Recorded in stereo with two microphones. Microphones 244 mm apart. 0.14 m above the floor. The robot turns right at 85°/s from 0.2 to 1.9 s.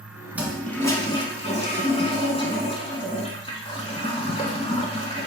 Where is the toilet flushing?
5° right (ahead or behind), 0.9 m; by 5.3 s 25° left (ahead or behind), 0.9 m.